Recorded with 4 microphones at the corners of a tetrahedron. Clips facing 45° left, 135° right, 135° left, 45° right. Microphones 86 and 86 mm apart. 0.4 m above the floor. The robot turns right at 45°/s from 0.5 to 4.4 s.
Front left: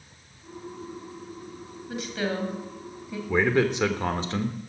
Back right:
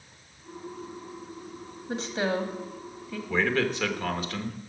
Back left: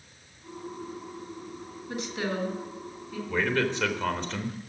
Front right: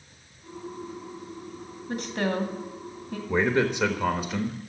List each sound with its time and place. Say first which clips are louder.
1.9 s a woman speaking: back right 2 dB, front right 4 dB; 85° right, 2 m; by 3.2 s 25° right, 2 m
3.3 s a man speaking: front left 4 dB, front right 4 dB; 15° right, 1.0 m; by 4.6 s 35° left, 1.0 m